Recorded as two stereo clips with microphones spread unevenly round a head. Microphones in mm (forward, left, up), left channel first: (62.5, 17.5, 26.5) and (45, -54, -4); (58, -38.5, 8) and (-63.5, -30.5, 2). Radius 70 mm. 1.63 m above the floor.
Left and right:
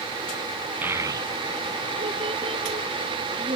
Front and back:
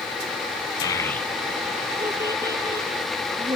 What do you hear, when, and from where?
0.8 s a child speaking: 15° right; by 3.6 s 125° right